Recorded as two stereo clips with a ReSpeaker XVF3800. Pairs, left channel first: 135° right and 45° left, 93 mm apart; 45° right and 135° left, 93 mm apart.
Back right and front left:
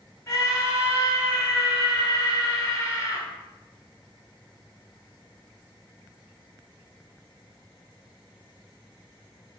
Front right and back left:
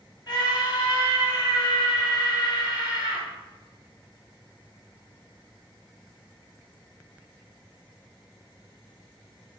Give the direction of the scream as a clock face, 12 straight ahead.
3 o'clock.